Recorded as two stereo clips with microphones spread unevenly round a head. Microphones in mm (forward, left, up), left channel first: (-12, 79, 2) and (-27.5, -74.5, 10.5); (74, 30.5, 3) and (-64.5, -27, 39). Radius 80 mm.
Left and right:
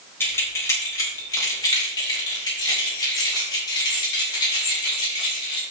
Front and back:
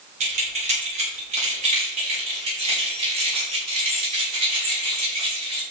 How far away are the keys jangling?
About 3.5 m.